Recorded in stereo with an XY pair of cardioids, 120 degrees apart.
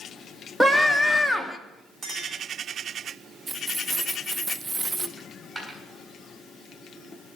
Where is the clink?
40° right, 3 m.